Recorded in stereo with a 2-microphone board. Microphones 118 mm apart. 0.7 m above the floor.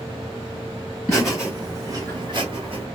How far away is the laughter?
About 1.1 m.